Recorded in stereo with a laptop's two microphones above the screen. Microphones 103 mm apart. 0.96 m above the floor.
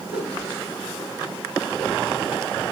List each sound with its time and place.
0.1 s a whoosh: 10° right (ahead or behind), 5.5 m